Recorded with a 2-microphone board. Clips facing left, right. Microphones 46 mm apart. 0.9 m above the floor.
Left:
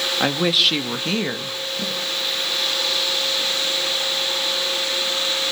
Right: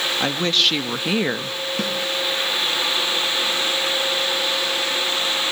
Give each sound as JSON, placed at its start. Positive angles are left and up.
{"t": 0.2, "sound": "a woman speaking", "side_deg": 10, "distance_m": 1.5}
{"t": 1.8, "sound": "a snare drum", "side_deg": -70, "distance_m": 9.0}